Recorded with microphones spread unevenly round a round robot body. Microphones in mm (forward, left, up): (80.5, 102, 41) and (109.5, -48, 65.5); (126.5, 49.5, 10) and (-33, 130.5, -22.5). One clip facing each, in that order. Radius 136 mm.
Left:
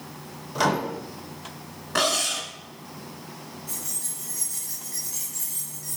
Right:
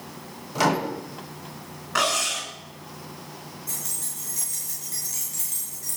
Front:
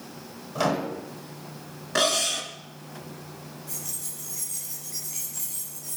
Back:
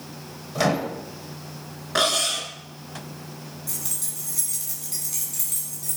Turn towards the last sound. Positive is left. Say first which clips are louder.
# even, back 3 dB
turn(degrees=-150)